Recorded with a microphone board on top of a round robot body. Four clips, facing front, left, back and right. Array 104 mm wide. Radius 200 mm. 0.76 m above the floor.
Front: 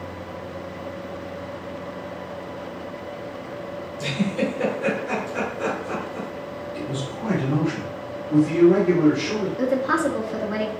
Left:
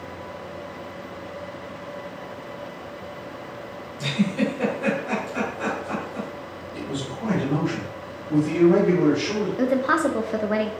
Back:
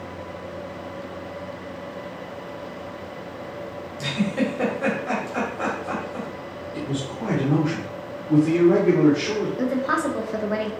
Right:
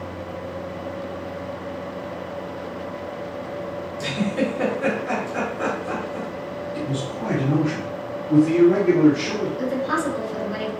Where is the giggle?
155° right, 2.5 m.